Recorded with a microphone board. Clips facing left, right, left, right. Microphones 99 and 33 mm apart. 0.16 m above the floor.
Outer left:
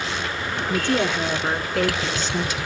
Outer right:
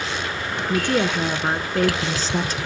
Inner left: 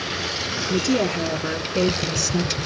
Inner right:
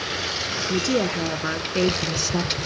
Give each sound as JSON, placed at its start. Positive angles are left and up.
{"t": 0.7, "sound": "a woman speaking", "side_deg": -15, "distance_m": 1.9}